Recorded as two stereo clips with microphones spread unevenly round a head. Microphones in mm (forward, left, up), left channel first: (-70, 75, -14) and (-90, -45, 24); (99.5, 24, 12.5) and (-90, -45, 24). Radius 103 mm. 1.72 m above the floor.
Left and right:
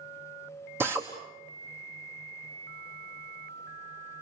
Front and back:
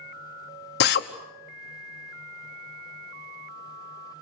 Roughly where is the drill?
Ahead.